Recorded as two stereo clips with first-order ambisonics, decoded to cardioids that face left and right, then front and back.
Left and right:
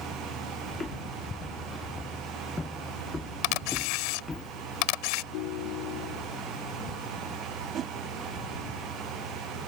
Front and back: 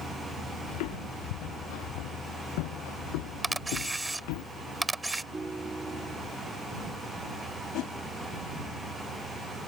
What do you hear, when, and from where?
0.7 s footsteps: 15° left; by 4.4 s 10° left
3.4 s a camera shutter: 95° left
5.3 s a ringtone: 100° left
7.7 s a whoosh: 35° right